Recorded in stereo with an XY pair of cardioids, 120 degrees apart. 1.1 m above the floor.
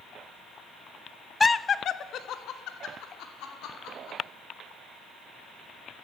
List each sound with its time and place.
1.4 s laughter: 15° left, 0.6 m; by 4.2 s 75° left, 3.5 m